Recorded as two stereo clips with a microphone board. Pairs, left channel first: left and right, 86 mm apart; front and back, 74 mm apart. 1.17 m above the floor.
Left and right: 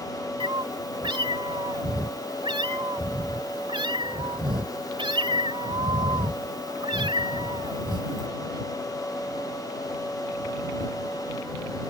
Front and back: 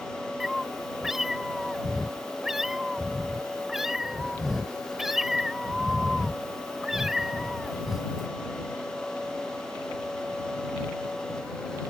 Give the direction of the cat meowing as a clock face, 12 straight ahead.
3 o'clock.